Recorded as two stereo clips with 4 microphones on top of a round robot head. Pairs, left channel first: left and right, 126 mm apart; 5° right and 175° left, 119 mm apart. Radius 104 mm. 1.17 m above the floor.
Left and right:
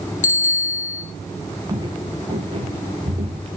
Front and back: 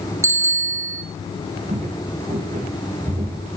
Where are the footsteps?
145° right, 4.5 m; by 3.5 s 125° right, 4 m.